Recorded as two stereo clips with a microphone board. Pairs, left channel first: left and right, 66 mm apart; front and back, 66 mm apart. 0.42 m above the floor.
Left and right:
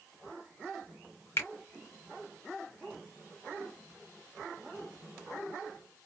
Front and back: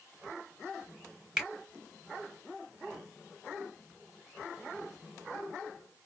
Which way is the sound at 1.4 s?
105° left.